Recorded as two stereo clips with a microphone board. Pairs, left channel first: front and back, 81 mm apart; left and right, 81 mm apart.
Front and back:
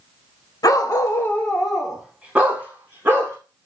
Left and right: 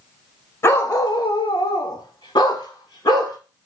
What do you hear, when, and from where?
0.6 s a dog barking: 35° left, 0.7 m; by 3.4 s 125° left, 1.4 m